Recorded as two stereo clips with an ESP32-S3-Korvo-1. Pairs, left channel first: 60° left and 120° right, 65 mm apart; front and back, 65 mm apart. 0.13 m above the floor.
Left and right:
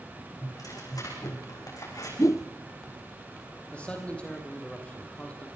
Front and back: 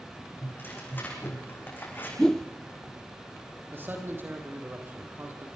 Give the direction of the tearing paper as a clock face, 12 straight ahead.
10 o'clock.